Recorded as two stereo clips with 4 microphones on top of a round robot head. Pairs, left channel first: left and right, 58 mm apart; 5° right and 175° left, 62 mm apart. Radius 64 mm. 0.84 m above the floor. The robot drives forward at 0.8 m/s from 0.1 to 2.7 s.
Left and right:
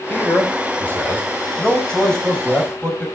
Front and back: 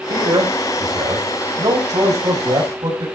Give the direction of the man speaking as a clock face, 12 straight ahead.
7 o'clock.